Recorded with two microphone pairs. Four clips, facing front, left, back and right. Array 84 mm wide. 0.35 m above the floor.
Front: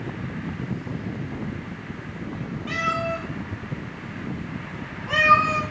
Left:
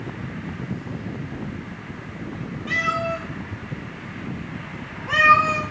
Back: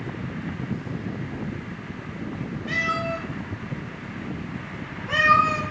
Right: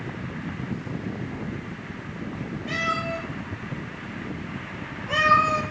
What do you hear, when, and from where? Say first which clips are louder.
2.7 s a cat meowing: left 4 dB, front 1 dB; 40° left, 2 m; by 5.6 s 90° left, 1.3 m